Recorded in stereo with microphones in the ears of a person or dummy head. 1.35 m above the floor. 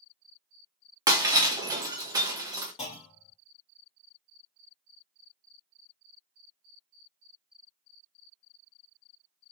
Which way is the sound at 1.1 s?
20° right (ahead or behind).